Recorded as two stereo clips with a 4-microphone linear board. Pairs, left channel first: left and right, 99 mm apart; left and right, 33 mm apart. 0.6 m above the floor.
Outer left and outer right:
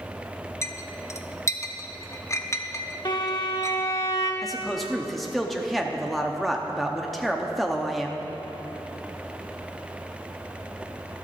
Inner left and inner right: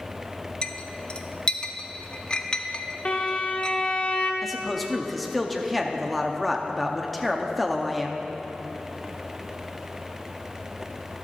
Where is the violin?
50° left (ahead or behind), 1.3 m.